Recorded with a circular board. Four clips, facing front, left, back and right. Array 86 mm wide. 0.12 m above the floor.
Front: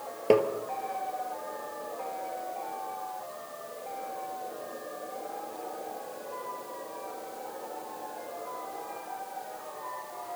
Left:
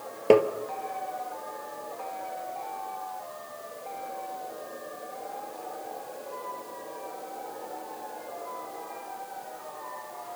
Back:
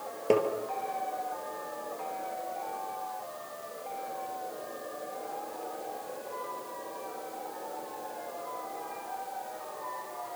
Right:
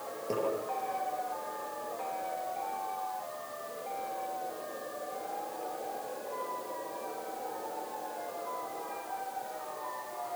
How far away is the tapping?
About 2.5 m.